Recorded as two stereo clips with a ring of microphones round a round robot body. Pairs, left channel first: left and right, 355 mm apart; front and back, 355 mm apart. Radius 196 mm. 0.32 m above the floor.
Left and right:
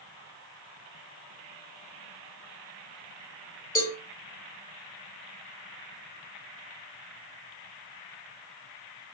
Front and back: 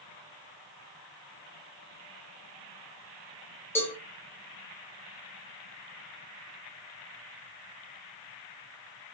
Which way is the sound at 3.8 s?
75° left.